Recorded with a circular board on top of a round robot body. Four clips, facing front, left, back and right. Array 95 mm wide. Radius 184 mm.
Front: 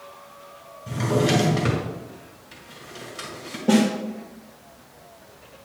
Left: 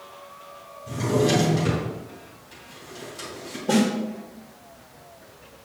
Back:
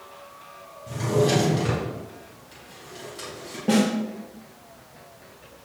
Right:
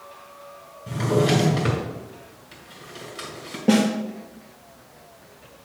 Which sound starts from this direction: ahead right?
A drawer, at 0.9 s.